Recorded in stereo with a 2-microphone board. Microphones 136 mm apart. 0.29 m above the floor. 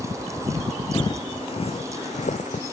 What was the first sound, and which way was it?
Footsteps, 30° left (ahead or behind).